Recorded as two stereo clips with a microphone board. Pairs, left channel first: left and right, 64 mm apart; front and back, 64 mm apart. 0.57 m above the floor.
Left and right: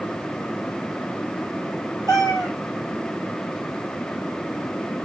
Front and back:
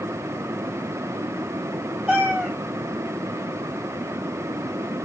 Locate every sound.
2.1 s a cat meowing: 105° left, 2.5 m